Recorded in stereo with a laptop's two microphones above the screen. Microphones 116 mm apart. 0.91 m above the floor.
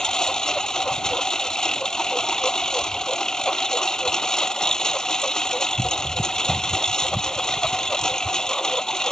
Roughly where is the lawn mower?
Centre.